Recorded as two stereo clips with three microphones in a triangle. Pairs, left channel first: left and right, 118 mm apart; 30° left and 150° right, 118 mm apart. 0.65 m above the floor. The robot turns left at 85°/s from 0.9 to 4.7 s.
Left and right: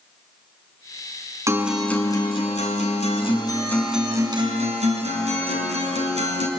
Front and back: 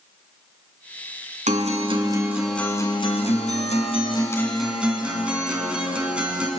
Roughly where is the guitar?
Behind right.